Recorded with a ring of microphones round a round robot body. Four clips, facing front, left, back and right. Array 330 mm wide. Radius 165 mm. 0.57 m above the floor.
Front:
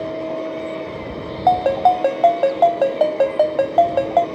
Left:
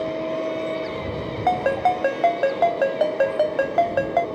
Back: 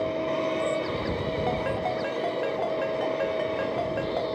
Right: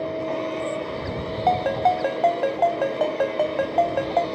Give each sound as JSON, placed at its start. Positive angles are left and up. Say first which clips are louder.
{"t": 1.5, "sound": "a ringtone", "louder": "even, front 18 dB", "azimuth_deg": 20}